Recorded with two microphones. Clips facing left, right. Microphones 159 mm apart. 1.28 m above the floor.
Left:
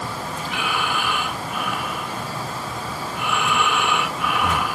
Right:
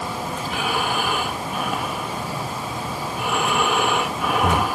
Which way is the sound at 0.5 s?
45° right (ahead or behind).